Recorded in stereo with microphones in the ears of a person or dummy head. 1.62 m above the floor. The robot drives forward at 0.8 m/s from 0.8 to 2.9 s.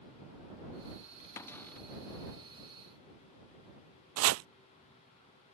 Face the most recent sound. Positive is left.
turn(degrees=-75)  # may be behind; listen again after turning